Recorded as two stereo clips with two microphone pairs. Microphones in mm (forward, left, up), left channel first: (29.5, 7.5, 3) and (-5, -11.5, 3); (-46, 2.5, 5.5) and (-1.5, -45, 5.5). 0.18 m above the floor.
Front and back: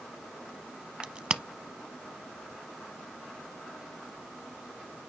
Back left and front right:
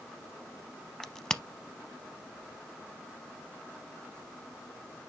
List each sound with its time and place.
1.0 s a crack: 160° right, 0.6 m